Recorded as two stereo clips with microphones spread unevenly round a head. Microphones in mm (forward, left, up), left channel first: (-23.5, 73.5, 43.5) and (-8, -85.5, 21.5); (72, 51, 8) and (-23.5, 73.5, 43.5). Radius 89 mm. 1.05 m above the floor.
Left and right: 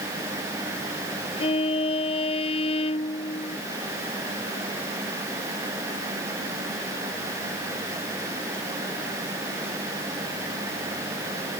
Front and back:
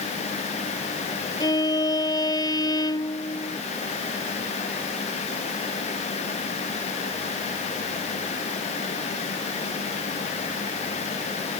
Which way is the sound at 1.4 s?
35° left.